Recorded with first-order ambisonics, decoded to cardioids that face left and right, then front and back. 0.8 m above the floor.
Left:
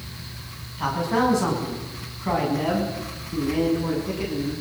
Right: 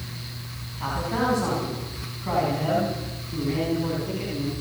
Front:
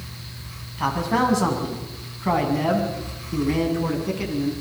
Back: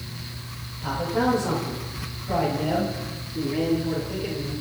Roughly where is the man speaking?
Ahead.